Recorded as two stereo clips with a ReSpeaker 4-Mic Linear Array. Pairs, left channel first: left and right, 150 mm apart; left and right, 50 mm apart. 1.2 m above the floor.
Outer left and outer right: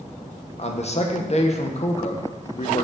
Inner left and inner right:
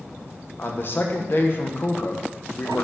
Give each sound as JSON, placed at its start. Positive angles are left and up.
{"t": 0.6, "sound": "a man speaking", "side_deg": 45, "distance_m": 0.8}